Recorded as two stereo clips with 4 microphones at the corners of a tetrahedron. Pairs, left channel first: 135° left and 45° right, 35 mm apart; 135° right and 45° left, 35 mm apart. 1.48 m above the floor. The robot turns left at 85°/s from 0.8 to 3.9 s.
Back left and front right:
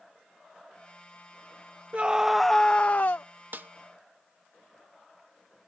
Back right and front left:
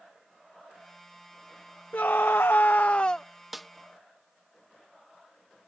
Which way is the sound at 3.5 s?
40° right.